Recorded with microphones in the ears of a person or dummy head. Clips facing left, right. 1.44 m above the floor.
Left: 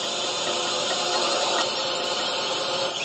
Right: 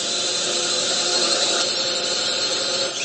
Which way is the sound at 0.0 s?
15° right (ahead or behind).